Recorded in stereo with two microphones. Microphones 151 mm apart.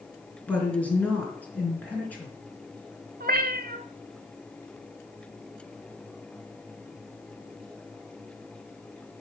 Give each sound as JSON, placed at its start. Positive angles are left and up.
{"t": 0.5, "sound": "a woman speaking", "side_deg": 10, "distance_m": 3.5}
{"t": 3.2, "sound": "a cat meowing", "side_deg": -85, "distance_m": 0.6}